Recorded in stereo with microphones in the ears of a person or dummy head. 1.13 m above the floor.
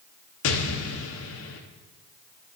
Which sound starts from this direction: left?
An explosion, at 0.4 s.